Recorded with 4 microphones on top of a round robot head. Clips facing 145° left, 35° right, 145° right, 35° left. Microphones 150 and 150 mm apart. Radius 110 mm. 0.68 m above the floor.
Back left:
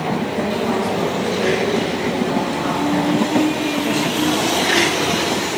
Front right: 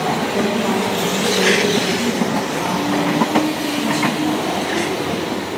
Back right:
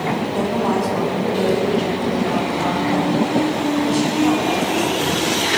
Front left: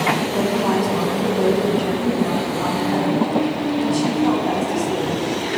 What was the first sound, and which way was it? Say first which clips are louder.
A woman speaking: front right 2 dB, even; 60° right.